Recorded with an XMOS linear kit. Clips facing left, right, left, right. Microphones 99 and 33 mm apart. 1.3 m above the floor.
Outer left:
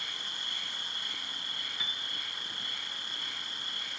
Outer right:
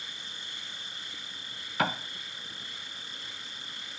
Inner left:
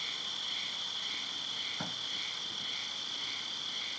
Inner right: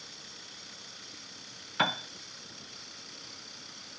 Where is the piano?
75° right (ahead or behind).